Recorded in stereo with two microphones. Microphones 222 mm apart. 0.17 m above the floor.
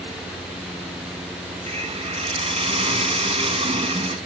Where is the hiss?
25° right (ahead or behind), 1.1 m.